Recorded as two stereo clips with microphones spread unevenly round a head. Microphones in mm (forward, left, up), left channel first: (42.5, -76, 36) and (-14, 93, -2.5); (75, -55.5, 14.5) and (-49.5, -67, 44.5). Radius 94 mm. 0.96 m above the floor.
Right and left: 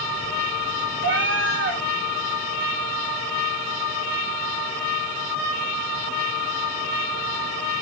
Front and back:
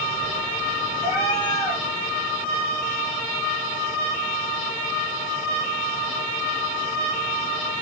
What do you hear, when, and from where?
1.0 s a cat meowing: 80° left, 1.3 m